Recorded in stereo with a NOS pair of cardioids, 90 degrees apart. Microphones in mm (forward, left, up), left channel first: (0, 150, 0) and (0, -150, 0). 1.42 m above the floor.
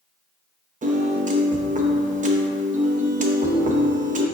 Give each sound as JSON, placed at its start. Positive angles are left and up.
{"t": 0.8, "sound": "a piano", "azimuth_deg": -25, "distance_m": 0.7}